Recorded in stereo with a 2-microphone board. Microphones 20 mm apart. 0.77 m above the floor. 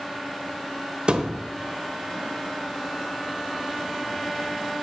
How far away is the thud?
About 0.9 m.